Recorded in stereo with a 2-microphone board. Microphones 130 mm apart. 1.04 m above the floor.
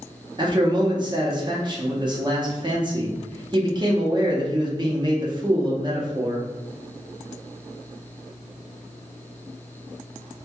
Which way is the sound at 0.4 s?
35° right (ahead or behind).